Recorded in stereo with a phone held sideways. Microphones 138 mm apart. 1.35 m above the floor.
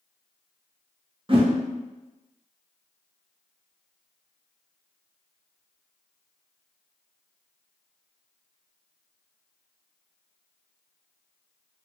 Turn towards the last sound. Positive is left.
turn(degrees=-40)  # may be behind; listen again after turning